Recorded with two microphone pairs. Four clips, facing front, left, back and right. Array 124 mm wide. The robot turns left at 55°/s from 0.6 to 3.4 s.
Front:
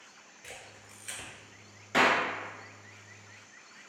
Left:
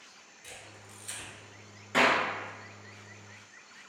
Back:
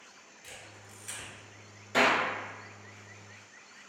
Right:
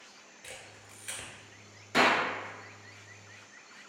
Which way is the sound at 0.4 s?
50° right.